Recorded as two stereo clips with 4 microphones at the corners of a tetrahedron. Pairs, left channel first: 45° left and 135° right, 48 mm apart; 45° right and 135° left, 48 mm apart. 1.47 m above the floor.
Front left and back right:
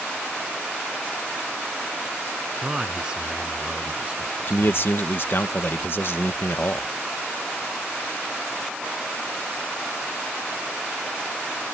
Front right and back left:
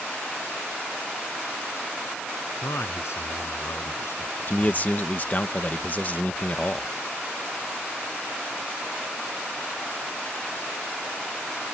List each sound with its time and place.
2.6 s a man speaking: 60° right; by 4.9 s 70° right
4.5 s a man speaking: 10° left